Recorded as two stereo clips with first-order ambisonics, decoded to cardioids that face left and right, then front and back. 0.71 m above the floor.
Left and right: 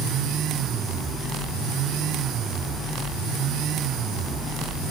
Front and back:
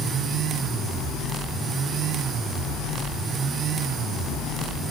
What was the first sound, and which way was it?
Only background noise.